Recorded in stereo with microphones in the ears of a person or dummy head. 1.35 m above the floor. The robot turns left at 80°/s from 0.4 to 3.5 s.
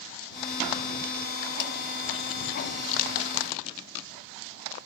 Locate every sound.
1.6 s a snare drum: 60° left (ahead or behind); by 1.7 s 50° left (ahead or behind)